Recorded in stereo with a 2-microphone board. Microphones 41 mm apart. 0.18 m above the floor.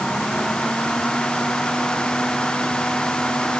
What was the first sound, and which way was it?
Only background noise.